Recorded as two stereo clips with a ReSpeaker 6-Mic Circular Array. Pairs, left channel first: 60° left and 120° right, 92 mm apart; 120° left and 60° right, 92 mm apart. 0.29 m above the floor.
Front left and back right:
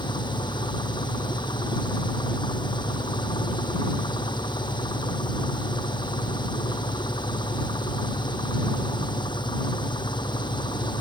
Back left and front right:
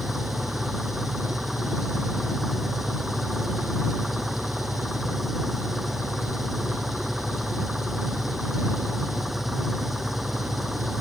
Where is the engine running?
25° left.